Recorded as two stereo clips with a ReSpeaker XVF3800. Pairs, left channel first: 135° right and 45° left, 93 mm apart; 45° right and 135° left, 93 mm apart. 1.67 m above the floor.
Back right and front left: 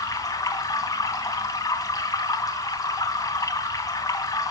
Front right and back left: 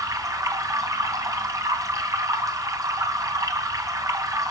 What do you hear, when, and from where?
0.0 s running water: straight behind, 2.5 m